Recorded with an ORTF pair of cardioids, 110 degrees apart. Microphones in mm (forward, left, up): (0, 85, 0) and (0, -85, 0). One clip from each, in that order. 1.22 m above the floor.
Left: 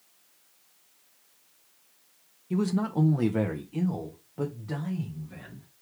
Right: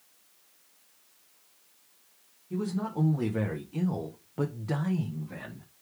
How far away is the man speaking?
About 0.9 m.